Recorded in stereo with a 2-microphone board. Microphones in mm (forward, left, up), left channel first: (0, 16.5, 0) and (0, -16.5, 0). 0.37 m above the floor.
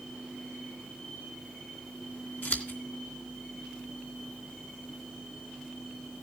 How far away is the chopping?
I don't hear chopping.